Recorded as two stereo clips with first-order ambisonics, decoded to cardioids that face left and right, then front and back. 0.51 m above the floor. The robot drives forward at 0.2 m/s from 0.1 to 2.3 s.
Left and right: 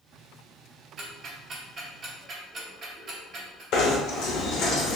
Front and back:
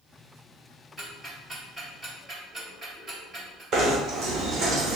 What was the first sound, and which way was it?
Ticking, 100° right.